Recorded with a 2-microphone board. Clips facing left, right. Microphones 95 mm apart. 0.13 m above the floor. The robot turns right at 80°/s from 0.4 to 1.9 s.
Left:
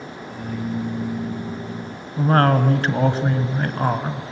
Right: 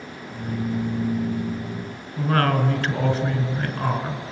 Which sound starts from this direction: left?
A woman speaking, at 2.2 s.